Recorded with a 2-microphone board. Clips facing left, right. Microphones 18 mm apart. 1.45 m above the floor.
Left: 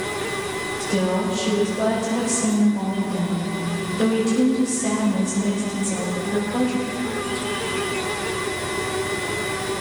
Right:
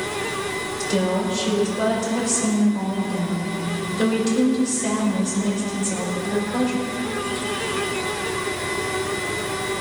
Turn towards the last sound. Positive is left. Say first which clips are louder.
# even
turn(degrees=-40)  # may be behind; listen again after turning